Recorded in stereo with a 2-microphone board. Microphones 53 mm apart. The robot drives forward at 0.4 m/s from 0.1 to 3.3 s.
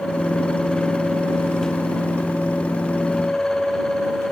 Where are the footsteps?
No footsteps in this recording.